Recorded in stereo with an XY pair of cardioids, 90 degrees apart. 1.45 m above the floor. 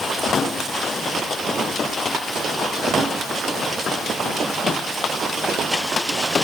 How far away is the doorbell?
I don't hear a doorbell.